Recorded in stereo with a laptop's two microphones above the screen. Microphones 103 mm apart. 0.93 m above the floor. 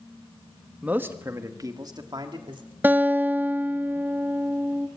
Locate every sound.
0.8 s a man speaking: 15° right (ahead or behind), 1.1 m; by 2.6 s 50° right (ahead or behind), 2.5 m
2.8 s a guitar: 20° right (ahead or behind), 0.8 m